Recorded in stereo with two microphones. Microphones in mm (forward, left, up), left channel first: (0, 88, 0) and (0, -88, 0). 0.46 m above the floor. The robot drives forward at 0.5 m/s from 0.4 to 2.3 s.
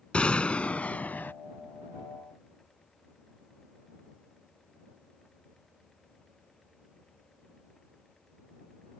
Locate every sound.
0.1 s a gunshot: 5° left (ahead or behind); by 1.3 s 10° left (ahead or behind)